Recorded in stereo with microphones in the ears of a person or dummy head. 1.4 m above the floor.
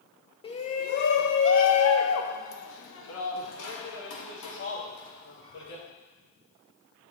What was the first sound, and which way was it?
A shout, 20° left (ahead or behind).